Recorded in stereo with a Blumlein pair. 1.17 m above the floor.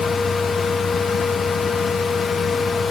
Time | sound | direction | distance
0.0 | a fan | 20° left | 1.3 m